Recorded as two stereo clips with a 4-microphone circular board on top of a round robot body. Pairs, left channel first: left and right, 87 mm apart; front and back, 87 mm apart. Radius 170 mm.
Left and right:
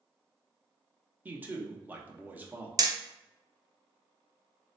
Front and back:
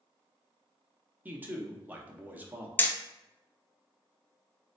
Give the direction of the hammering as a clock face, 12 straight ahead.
2 o'clock.